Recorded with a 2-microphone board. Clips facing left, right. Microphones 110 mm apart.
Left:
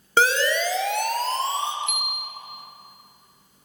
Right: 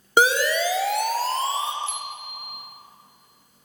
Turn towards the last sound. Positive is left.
turn(degrees=-35)  # may be behind; listen again after turning